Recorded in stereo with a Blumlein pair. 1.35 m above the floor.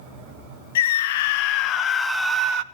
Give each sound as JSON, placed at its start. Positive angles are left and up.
{"t": 0.8, "sound": "a scream", "azimuth_deg": 55, "distance_m": 1.4}